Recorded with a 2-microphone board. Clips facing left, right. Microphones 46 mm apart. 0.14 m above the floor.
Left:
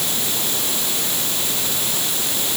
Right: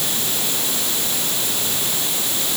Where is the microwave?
No microwave in this recording.